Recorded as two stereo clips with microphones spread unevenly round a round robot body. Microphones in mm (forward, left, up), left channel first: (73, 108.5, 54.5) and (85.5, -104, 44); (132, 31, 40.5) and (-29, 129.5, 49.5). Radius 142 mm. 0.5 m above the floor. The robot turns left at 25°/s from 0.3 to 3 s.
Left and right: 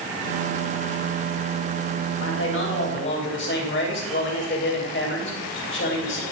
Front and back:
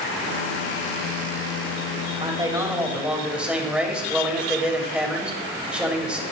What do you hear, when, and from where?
2.2 s a man speaking: 85° left, 3 m; by 6.2 s 65° left, 3 m